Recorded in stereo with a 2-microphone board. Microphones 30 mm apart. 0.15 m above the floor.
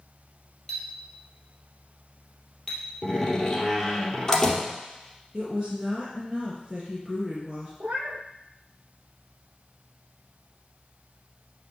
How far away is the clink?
About 2.5 m.